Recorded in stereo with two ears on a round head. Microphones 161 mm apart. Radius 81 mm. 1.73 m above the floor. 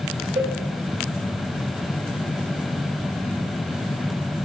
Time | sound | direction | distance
0.4 | a cowbell | 30° right (ahead or behind) | 5.5 m